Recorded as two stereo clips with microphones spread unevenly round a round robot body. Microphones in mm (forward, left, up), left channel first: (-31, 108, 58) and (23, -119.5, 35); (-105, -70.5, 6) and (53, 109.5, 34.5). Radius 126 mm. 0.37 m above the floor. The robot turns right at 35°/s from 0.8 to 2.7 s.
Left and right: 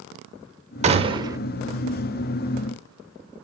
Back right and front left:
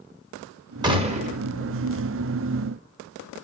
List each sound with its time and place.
0.8 s a gunshot: 25° right, 0.6 m; by 1.4 s 5° right, 0.6 m